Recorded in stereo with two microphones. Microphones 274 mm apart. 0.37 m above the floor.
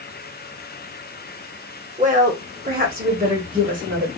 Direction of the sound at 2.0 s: 25° right (ahead or behind).